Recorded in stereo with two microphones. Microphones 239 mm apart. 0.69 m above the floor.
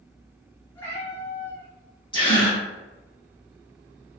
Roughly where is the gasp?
Centre.